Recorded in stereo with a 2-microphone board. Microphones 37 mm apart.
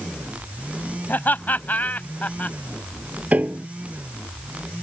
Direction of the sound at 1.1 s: 60° left (ahead or behind).